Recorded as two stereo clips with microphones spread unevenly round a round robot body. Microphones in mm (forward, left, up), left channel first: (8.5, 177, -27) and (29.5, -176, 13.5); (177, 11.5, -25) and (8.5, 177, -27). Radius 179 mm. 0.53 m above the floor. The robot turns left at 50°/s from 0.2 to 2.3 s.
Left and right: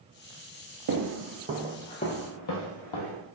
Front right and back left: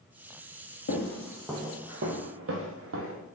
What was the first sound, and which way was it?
Footsteps, 75° right.